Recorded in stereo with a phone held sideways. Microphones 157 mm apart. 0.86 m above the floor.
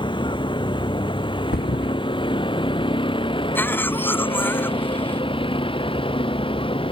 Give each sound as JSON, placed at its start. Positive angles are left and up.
{"t": 0.0, "sound": "a vehicle", "side_deg": 30}
{"t": 1.5, "sound": "a thud", "side_deg": 80}
{"t": 3.5, "sound": "a cough", "side_deg": 15}